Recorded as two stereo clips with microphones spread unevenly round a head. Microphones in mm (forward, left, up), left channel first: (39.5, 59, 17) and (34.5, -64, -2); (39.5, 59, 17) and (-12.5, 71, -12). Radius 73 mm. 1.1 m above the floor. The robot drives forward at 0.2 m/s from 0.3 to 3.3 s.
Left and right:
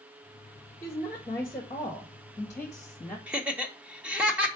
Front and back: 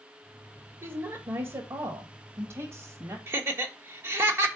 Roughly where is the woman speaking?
Behind.